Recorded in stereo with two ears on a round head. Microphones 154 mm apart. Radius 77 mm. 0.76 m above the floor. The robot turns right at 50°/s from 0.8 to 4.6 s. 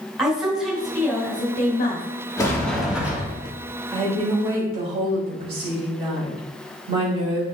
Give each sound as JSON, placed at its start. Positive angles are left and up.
{"t": 0.2, "sound": "a woman speaking", "azimuth_deg": -5, "distance_m": 3.0}
{"t": 2.4, "sound": "a sliding door", "azimuth_deg": 155, "distance_m": 1.8}
{"t": 3.9, "sound": "a woman speaking", "azimuth_deg": -175, "distance_m": 3.5}